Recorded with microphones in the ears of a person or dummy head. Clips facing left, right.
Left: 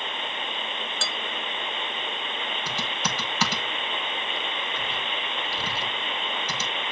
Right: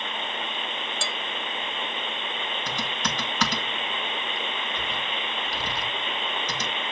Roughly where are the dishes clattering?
Centre.